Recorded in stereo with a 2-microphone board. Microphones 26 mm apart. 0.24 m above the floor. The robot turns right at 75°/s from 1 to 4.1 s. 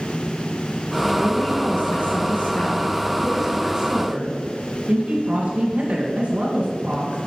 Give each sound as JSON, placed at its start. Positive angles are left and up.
{"t": 1.2, "sound": "a woman speaking", "azimuth_deg": 35, "distance_m": 1.9}